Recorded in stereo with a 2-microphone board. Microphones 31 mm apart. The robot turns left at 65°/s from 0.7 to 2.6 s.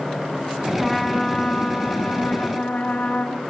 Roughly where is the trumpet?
Behind.